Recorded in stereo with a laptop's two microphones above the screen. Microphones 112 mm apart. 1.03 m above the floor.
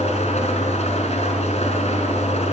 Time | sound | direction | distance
0.0 | an engine running | 85° left | 6 m